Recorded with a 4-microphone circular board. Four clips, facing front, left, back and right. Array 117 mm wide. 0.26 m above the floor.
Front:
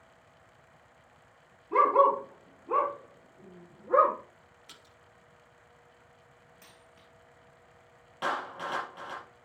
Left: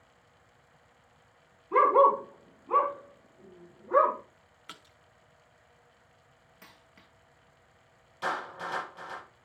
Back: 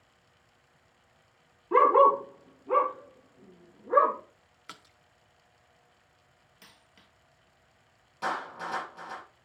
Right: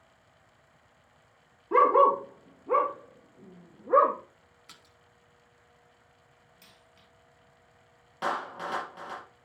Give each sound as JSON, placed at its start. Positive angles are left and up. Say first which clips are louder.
{"t": 1.7, "sound": "a dog barking", "louder": "right 1 dB, back 3 dB", "azimuth_deg": -125, "distance_m": 2.0}
{"t": 4.7, "sound": "a splash", "louder": "left 8 dB, back 10 dB", "azimuth_deg": 155, "distance_m": 0.7}
{"t": 6.6, "sound": "a dropped coin", "louder": "left 5 dB, back 1 dB", "azimuth_deg": 105, "distance_m": 1.0}
{"t": 8.2, "sound": "a clap", "louder": "right 2 dB, even", "azimuth_deg": -65, "distance_m": 4.5}